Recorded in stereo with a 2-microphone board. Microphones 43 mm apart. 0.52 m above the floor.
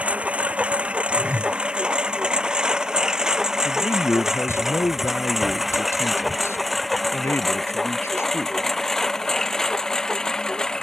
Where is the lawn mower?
30° right (ahead or behind); by 10.8 s 15° left (ahead or behind).